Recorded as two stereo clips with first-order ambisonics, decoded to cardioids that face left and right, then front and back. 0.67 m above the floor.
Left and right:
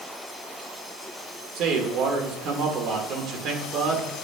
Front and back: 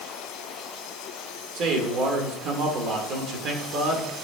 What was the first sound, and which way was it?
A man speaking, 135° right.